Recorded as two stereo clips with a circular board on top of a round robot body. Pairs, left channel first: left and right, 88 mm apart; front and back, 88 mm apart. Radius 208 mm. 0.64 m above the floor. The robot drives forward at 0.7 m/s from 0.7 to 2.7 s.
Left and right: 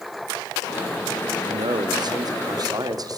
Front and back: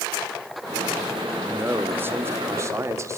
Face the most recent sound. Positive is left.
turn(degrees=-125)